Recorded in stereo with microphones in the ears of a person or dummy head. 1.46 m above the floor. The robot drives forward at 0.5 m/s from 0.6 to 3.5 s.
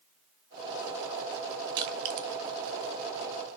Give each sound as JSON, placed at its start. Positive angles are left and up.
{"t": 1.8, "sound": "crushing", "side_deg": -20, "distance_m": 0.6}